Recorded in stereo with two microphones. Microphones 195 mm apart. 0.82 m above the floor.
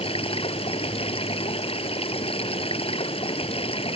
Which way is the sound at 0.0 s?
30° left (ahead or behind).